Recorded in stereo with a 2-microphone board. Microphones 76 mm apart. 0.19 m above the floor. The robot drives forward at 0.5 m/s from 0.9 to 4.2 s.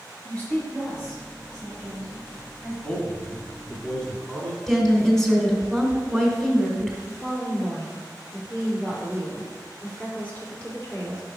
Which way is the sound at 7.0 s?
20° left (ahead or behind).